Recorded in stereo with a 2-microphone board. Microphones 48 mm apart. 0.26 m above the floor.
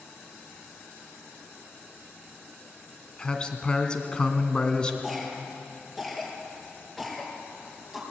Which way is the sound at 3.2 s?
20° left (ahead or behind).